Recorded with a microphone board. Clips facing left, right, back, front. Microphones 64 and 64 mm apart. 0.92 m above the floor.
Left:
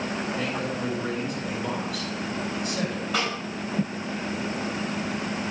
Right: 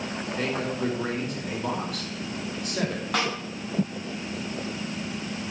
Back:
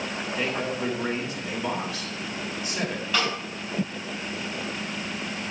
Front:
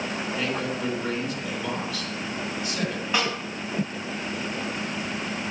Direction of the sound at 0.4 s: 115° right.